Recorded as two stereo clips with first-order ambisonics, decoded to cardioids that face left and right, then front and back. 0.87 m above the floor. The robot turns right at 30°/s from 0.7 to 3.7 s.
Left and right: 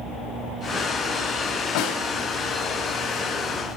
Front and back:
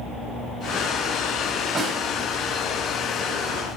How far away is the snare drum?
About 1.8 m.